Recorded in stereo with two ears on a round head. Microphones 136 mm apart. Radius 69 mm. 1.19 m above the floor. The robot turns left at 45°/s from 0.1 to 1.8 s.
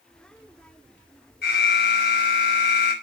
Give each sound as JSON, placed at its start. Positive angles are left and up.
{"t": 1.4, "sound": "an alarm", "side_deg": 70, "distance_m": 5.5}